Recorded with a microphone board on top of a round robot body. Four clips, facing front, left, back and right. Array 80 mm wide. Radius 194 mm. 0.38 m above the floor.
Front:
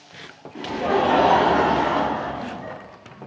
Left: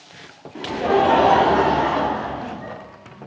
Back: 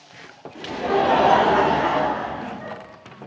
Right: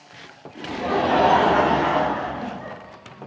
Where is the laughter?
60° left, 1.5 m; by 2.8 s 125° right, 2 m.